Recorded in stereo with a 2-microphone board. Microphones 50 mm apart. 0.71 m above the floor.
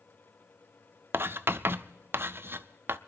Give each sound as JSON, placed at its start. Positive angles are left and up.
{"t": 1.1, "sound": "writing", "side_deg": -50, "distance_m": 0.5}